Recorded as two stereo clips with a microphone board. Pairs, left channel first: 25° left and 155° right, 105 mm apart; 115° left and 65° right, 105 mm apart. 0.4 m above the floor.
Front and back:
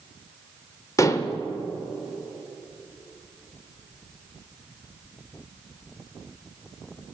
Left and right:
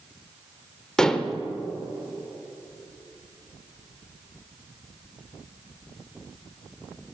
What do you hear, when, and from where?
1.0 s dishes clattering: 35° left, 0.6 m